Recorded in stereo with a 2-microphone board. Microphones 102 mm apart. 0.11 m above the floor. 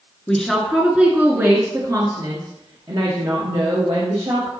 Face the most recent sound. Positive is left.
turn(degrees=-65)  # may be behind; listen again after turning